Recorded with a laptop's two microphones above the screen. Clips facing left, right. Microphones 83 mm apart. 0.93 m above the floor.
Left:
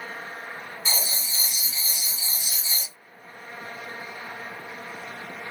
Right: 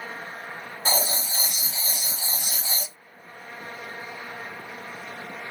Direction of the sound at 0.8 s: 55° right (ahead or behind).